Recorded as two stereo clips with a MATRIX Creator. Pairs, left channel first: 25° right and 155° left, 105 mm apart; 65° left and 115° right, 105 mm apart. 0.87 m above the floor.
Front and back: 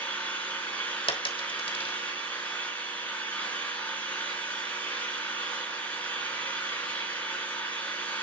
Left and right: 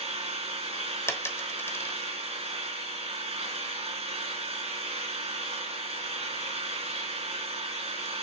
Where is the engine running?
95° right, 4 m.